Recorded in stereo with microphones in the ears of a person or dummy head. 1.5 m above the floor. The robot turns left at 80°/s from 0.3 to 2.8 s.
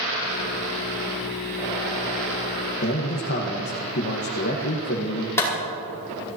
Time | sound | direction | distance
2.8 | a man speaking | 50° left (ahead or behind) | 1.4 m
5.4 | a clap | 15° left (ahead or behind) | 5 m